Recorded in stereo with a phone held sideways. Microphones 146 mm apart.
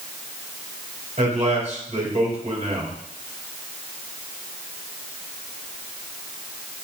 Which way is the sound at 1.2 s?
55° right (ahead or behind).